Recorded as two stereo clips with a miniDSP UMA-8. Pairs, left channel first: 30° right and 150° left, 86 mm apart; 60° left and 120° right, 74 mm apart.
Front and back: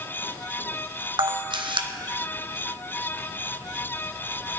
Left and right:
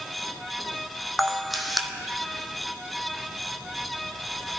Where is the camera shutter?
150° left, 1.1 m.